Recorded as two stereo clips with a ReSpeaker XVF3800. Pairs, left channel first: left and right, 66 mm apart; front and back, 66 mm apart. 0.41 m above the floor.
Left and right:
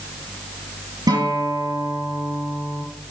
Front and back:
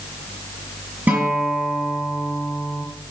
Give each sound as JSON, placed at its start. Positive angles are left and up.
{"t": 1.1, "sound": "a guitar", "azimuth_deg": -115, "distance_m": 6.5}